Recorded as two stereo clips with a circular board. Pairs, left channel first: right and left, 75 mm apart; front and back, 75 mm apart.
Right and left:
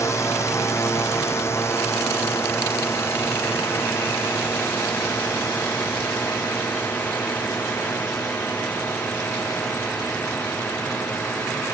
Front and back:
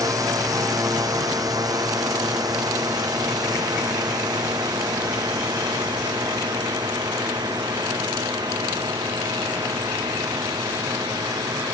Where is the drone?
140° right; by 11.7 s 155° right.